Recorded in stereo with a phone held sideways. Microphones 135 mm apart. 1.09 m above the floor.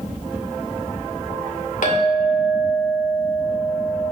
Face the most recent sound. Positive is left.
turn(degrees=75)  # may be behind; listen again after turning